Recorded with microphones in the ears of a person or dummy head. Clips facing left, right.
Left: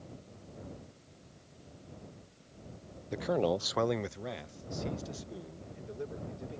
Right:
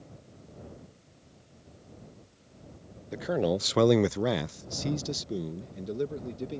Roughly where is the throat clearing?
No throat clearing in this recording.